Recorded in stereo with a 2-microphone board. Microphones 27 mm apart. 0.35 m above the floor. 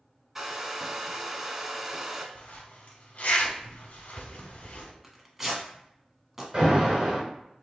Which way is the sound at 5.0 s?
15° right (ahead or behind).